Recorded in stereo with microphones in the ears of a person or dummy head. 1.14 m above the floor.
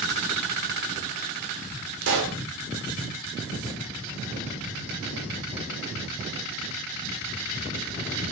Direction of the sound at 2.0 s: 60° right (ahead or behind).